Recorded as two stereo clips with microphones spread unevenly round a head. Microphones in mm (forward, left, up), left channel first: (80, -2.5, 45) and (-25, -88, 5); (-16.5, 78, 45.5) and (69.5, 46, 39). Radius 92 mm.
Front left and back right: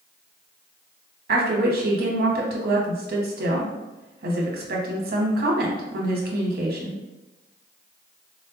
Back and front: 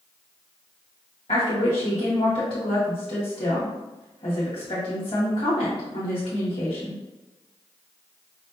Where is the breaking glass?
I don't hear breaking glass.